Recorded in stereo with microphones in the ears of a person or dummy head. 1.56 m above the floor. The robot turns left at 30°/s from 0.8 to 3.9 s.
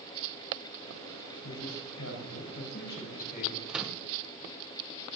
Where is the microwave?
5° right (ahead or behind), 1.1 m; by 4.0 s centre (ahead or behind), 1.1 m.